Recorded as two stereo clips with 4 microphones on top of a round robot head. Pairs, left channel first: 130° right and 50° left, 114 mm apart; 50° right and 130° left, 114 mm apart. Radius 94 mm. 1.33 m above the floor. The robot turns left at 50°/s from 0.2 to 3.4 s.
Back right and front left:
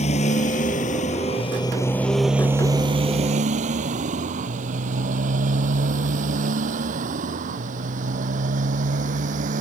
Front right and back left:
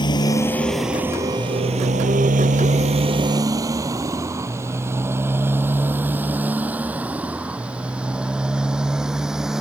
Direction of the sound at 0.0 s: 105° right.